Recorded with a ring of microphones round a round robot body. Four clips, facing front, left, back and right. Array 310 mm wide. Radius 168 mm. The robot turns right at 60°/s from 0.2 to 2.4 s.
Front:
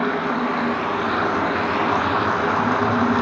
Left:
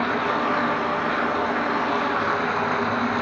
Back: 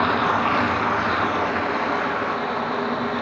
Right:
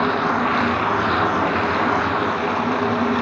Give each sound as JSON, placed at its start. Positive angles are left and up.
{"t": 0.0, "sound": "running water", "azimuth_deg": -145, "distance_m": 3.5}